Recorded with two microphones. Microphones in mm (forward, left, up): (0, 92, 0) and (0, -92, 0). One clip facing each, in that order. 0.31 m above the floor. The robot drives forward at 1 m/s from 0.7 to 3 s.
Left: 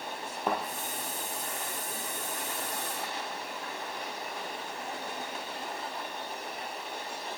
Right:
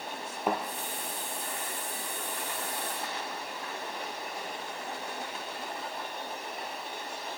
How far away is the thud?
About 1.3 m.